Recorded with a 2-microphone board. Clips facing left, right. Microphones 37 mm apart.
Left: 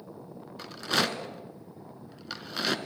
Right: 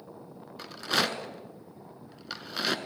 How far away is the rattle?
About 0.8 m.